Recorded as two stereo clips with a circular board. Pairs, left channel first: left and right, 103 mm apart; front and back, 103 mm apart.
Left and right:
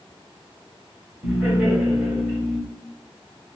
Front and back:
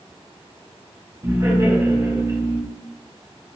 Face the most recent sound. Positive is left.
turn(degrees=-170)